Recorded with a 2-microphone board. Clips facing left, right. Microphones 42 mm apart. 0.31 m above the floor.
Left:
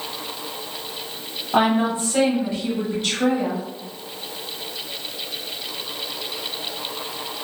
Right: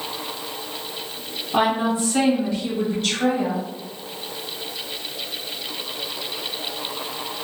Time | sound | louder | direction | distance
1.5 | a woman speaking | left 1 dB | 45° left (ahead or behind) | 1.7 m